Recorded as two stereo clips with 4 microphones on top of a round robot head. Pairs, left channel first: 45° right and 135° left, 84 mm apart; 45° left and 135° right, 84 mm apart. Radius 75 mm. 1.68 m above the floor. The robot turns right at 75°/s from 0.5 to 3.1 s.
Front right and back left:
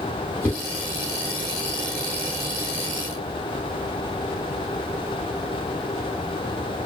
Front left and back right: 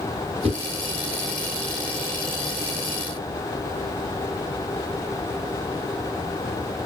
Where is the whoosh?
110° right, 1.7 m; by 0.6 s 105° right, 1.7 m.